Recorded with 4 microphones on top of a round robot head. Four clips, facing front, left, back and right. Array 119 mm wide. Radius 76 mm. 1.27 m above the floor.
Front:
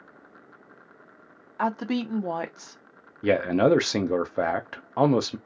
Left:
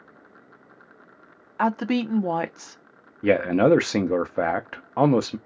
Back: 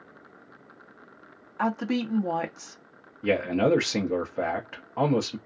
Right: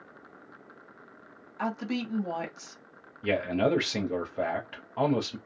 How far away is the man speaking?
About 0.5 m.